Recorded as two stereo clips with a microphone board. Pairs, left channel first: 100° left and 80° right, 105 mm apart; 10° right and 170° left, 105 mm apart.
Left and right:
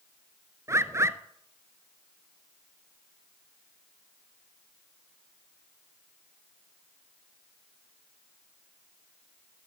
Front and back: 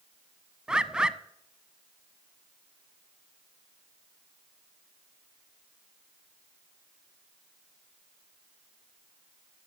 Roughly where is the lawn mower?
No lawn mower in this recording.